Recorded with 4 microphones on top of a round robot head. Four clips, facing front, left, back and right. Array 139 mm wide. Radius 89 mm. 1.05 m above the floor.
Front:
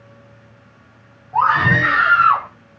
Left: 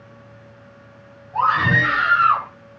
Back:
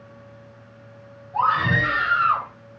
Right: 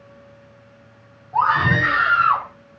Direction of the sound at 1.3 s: 35° right.